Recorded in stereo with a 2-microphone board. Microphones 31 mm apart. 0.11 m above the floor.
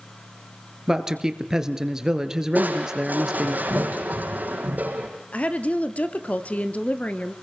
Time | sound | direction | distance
0.9 | a man speaking | 20° right (ahead or behind) | 2 m
2.5 | crushing | 70° right (ahead or behind) | 5 m
5.3 | a woman speaking | 50° left (ahead or behind) | 1.8 m